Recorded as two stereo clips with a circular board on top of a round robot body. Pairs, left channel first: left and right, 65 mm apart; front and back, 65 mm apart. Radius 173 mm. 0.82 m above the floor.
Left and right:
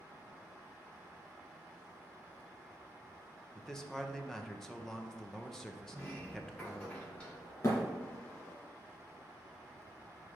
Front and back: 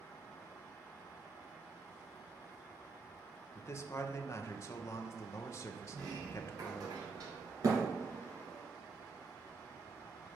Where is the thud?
140° left, 2.5 m.